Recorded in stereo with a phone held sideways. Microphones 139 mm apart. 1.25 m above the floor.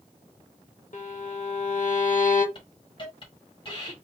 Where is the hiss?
35° left (ahead or behind), 1.6 m.